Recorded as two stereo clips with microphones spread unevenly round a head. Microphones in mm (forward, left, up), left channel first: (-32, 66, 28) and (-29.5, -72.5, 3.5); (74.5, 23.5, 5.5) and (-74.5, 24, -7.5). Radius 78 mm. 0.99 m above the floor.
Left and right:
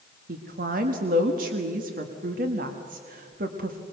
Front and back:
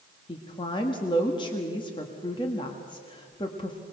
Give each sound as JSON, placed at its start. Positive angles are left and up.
{"t": 0.3, "sound": "a woman speaking", "azimuth_deg": -65, "distance_m": 1.5}